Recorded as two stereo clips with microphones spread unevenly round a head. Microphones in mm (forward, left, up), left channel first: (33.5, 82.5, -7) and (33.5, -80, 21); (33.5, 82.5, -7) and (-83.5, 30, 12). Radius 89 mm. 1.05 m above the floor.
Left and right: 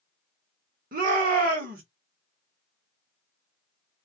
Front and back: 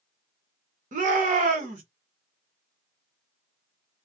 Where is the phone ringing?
No phone ringing in this recording.